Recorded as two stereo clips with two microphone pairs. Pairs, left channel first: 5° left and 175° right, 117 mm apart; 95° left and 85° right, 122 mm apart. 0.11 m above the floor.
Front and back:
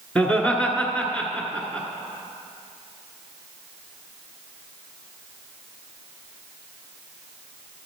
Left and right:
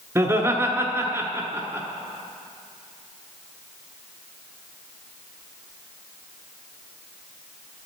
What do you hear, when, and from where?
0.1 s laughter: 55° right, 1.2 m